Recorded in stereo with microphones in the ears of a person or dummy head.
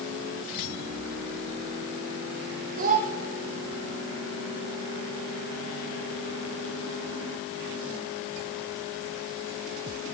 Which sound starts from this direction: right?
A child speaking, at 2.8 s.